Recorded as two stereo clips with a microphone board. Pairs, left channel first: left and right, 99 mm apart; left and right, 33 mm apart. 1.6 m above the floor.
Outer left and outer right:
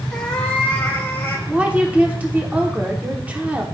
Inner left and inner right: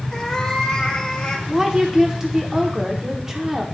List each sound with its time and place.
0.1 s a cat meowing: 5° left (ahead or behind), 0.8 m; by 1.4 s 20° left (ahead or behind), 1.3 m
1.5 s a woman speaking: 15° right (ahead or behind), 0.9 m